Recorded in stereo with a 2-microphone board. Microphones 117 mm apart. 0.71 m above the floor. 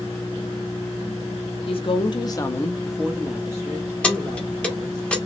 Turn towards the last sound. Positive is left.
turn(degrees=10)  # may be behind; listen again after turning